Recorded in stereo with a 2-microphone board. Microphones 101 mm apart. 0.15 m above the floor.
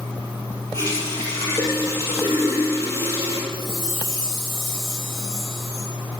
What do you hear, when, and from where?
0.7 s a running tap: 25° left (ahead or behind), 3 m
3.5 s a chime: centre (ahead or behind), 3.5 m